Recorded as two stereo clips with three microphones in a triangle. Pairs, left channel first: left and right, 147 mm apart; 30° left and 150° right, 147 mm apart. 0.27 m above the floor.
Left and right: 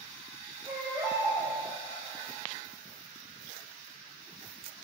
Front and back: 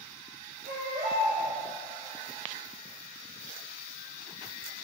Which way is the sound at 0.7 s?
160° right.